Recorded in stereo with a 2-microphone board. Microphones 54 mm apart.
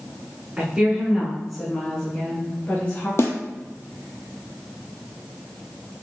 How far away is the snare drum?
About 0.7 m.